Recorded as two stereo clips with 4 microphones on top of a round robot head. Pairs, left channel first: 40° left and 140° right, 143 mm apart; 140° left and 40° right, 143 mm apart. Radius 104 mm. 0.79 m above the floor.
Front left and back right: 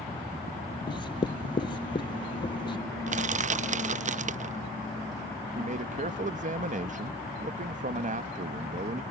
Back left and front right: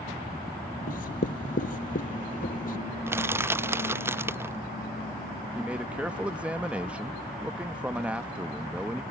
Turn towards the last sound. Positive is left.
turn(degrees=-125)